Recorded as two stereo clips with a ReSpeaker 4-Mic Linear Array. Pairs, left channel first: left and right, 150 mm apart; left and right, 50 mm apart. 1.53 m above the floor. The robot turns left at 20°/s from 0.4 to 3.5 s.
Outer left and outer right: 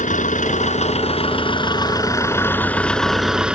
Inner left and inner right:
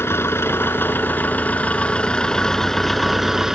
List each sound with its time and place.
0.0 s an engine running: 55° left; by 3.5 s 5° right